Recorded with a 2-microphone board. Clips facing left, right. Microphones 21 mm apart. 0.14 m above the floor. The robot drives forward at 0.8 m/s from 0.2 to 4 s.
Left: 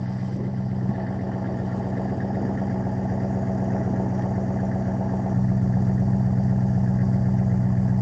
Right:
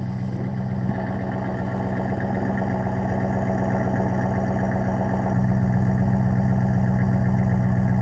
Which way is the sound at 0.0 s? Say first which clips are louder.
Right 1 dB; 35° right (ahead or behind).